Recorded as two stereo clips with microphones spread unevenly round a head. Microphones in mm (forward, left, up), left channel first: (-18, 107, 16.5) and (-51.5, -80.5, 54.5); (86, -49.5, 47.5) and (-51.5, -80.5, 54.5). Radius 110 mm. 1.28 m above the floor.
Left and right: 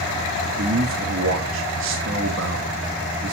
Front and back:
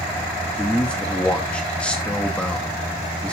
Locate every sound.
0.6 s a man speaking: 70° right, 3 m